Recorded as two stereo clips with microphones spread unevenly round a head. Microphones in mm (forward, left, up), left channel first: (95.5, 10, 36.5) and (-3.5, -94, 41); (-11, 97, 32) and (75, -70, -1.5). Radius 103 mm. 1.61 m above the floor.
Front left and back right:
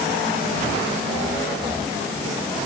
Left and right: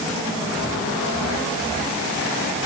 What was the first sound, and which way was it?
Only background noise.